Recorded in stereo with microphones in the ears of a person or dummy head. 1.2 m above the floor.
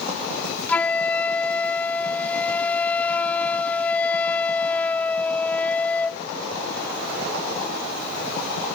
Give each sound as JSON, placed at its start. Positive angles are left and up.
{"t": 0.7, "sound": "a flute", "side_deg": 5}